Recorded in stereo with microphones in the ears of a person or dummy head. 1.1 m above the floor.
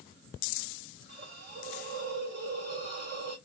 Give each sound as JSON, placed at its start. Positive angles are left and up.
{"t": 1.1, "sound": "a hiss", "side_deg": -40, "distance_m": 1.6}